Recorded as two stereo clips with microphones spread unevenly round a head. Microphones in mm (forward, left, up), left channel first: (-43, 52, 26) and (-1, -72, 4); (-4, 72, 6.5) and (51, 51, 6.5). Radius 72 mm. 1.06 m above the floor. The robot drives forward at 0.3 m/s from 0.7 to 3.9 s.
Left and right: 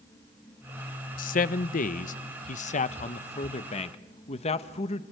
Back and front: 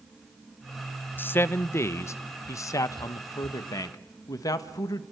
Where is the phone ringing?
No phone ringing in this recording.